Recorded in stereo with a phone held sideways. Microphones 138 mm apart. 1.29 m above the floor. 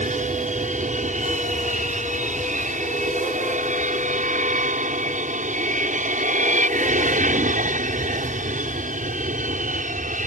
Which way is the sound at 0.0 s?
65° right (ahead or behind).